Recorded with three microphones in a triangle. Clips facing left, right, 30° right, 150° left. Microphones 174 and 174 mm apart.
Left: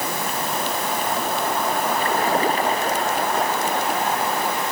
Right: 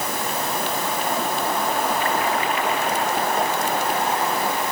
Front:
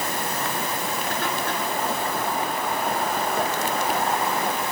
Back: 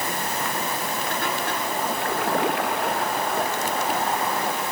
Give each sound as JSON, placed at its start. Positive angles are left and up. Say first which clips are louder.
{"t": 2.0, "sound": "a splash", "louder": "left 2 dB, back 3 dB", "azimuth_deg": 140}